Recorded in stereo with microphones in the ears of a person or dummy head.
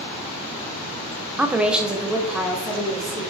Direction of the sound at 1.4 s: Centre (ahead or behind).